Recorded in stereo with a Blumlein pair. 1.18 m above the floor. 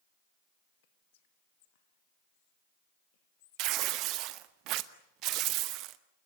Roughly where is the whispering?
Ahead left.